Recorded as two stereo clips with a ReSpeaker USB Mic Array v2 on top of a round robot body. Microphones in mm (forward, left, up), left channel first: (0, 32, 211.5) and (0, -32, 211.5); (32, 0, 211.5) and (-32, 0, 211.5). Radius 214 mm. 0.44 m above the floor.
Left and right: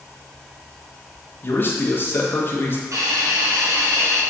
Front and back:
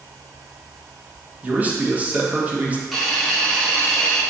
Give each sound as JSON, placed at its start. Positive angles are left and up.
{"t": 1.4, "sound": "a man speaking", "azimuth_deg": 125, "distance_m": 1.6}
{"t": 2.9, "sound": "a hiss", "azimuth_deg": -90, "distance_m": 1.8}